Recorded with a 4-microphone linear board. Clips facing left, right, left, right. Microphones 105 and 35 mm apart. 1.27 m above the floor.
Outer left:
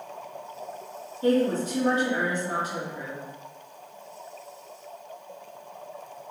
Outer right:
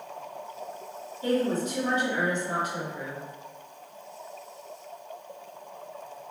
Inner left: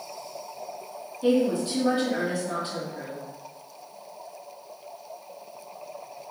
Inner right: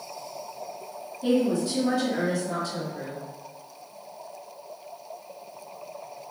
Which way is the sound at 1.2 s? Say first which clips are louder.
Outer left 3 dB, inner left 1 dB; 35° left (ahead or behind).